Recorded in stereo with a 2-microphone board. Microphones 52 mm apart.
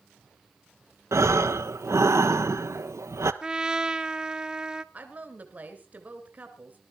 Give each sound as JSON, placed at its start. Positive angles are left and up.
{"t": 1.1, "sound": "breathing", "side_deg": -70, "distance_m": 0.7}
{"t": 3.4, "sound": "a trumpet", "side_deg": -15, "distance_m": 0.5}
{"t": 4.9, "sound": "a woman speaking", "side_deg": -30, "distance_m": 2.0}